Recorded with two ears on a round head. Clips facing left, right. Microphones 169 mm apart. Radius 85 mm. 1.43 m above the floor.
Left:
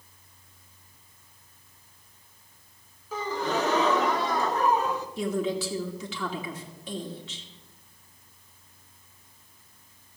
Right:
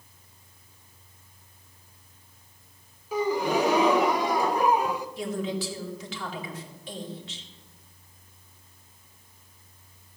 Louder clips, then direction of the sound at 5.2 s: Left 3 dB; 85° left.